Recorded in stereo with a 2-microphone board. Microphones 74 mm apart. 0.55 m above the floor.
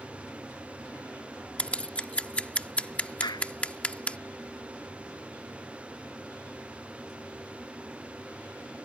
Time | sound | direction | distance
1.6 | scissors | 15° left (ahead or behind) | ?
3.2 | a clap | 70° left (ahead or behind) | ?